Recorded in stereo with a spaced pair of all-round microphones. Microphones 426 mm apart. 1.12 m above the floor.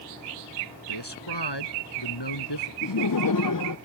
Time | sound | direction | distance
0.9 | a man speaking | 70° left (ahead or behind) | ?
2.8 | laughter | 50° left (ahead or behind) | ?